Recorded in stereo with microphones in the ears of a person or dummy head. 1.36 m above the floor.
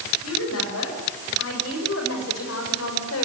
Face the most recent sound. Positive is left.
turn(degrees=85)